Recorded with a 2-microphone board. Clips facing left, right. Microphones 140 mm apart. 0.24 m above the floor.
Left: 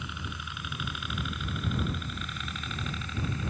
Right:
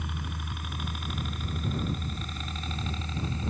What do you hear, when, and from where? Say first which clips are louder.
0.0 s a helicopter: right 2 dB; 45° right (ahead or behind); by 3.5 s 30° right (ahead or behind)